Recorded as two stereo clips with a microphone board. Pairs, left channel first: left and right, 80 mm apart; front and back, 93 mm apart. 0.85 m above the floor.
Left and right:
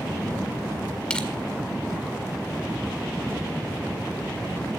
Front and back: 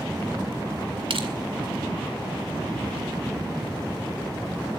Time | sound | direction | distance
1.1 | crushing | 170° left | 1.8 m